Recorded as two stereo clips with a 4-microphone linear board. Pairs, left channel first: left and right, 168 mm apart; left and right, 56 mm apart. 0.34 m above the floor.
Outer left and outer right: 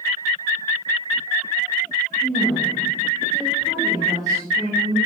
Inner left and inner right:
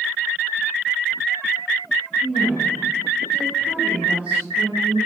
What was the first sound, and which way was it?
A woman speaking, 5° left (ahead or behind).